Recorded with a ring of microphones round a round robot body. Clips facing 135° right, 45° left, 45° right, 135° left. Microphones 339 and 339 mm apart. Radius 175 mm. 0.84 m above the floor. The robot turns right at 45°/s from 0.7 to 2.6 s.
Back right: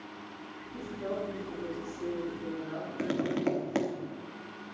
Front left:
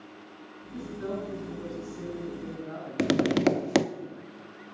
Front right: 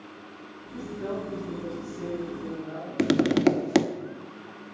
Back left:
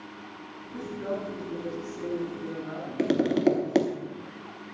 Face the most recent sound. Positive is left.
turn(degrees=20)